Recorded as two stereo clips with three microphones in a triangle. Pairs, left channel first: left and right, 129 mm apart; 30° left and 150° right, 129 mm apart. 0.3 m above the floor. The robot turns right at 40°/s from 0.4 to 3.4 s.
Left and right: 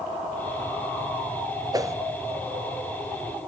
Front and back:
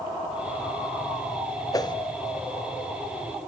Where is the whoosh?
30° right, 0.9 m; by 1.9 s 25° right, 0.9 m.